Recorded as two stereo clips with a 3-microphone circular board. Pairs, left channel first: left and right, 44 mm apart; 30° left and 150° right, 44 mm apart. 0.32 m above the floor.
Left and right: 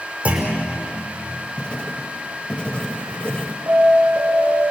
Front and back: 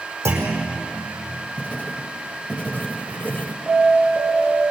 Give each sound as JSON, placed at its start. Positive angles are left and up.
{"t": 0.2, "sound": "a clunk", "azimuth_deg": -150, "distance_m": 5.0}
{"t": 1.6, "sound": "writing", "azimuth_deg": 45, "distance_m": 1.0}
{"t": 3.7, "sound": "an alarm", "azimuth_deg": -75, "distance_m": 4.5}